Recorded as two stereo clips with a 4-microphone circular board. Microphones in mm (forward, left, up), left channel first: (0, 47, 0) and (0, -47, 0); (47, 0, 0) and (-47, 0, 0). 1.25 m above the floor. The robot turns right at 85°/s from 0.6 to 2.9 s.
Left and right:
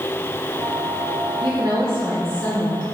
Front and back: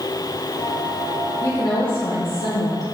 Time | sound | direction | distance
1.4 | a woman speaking | 65° right | 0.9 m